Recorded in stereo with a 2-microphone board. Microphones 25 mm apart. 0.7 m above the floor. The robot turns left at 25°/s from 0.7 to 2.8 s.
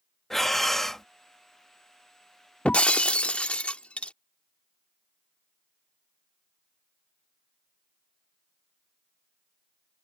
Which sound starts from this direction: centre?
Breathing, at 0.3 s.